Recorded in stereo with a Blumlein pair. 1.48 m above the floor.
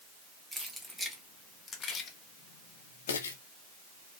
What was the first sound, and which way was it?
Keys jangling, 10° right.